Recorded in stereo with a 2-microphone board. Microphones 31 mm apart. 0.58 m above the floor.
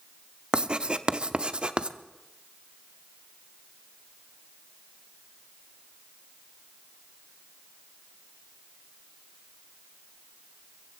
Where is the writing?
35° right (ahead or behind), 0.6 m.